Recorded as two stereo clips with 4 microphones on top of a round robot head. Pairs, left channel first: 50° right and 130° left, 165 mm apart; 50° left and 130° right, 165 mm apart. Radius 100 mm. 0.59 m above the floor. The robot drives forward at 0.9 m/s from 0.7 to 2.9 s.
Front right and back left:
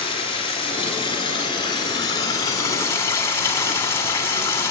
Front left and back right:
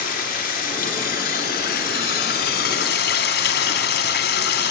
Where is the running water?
15° left, 4 m; by 4.7 s 25° left, 2 m.